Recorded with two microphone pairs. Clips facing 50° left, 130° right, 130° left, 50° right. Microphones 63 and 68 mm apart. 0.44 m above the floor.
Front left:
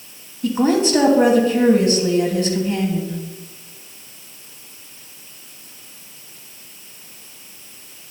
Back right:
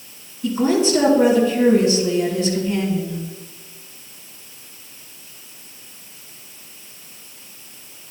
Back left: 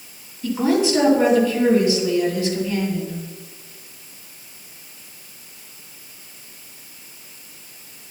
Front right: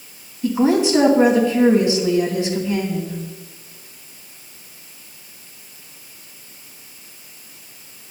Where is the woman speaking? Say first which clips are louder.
Front left 1 dB, front right 2 dB; 15° left, 2.5 m.